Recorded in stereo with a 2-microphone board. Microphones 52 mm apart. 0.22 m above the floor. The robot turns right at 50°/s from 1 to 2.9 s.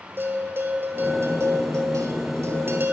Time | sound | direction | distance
0.2 | a bell | 135° right | 0.6 m